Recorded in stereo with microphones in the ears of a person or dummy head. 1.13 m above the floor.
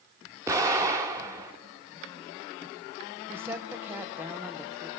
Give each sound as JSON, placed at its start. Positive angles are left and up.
{"t": 0.5, "sound": "an explosion", "side_deg": -15, "distance_m": 1.1}
{"t": 3.3, "sound": "a woman speaking", "side_deg": -15, "distance_m": 0.9}